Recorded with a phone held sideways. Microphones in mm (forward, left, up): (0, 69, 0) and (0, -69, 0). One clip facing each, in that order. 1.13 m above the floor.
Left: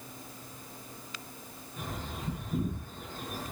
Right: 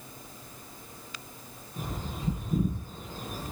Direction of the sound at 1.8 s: 40° right (ahead or behind).